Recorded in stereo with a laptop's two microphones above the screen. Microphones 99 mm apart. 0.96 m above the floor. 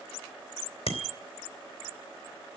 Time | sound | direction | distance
0.9 | a bicycle bell | 90° left | 3 m